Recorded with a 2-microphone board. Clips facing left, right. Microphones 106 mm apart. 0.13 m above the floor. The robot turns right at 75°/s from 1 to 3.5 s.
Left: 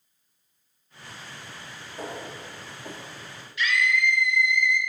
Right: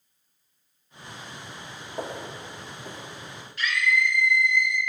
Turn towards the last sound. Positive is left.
turn(degrees=-45)  # may be behind; listen again after turning